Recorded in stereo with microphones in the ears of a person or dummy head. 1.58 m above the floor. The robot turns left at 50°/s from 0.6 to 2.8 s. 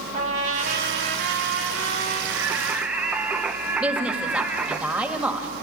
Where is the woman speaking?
10° right (ahead or behind), 2.5 m.